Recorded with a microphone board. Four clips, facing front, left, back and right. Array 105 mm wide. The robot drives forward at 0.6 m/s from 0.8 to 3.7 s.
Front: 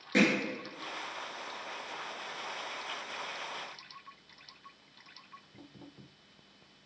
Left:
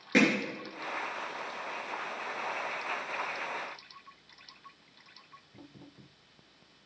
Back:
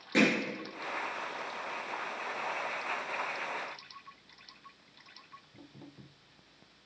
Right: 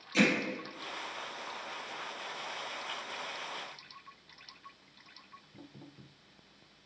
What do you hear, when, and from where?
0.1 s hammering: 85° left, 3.5 m